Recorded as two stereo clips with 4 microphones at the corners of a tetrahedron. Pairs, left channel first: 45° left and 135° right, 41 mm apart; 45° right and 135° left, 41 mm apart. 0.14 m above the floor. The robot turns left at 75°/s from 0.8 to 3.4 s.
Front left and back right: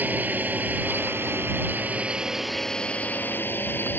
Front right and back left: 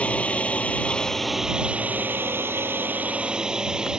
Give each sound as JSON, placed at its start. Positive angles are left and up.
{"t": 0.0, "sound": "a drone", "azimuth_deg": -100}